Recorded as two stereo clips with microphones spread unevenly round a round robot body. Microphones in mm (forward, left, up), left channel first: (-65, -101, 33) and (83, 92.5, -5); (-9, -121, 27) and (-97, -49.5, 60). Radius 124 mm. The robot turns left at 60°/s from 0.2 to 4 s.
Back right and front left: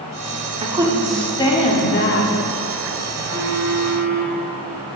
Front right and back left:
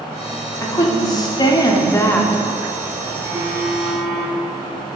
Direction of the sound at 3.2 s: 110° left.